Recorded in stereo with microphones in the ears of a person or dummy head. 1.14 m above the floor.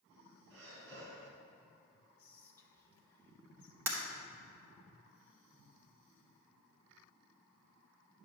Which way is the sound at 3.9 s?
10° right (ahead or behind).